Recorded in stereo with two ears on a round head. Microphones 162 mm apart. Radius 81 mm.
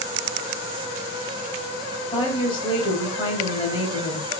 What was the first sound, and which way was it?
A woman speaking, 25° left (ahead or behind).